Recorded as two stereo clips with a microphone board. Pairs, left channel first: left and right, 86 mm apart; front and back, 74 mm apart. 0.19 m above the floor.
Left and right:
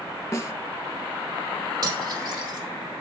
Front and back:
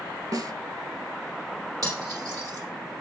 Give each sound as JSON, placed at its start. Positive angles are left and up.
{"t": 0.3, "sound": "a snare drum", "azimuth_deg": 145, "distance_m": 0.6}
{"t": 1.8, "sound": "cutlery clinking", "azimuth_deg": -135, "distance_m": 4.5}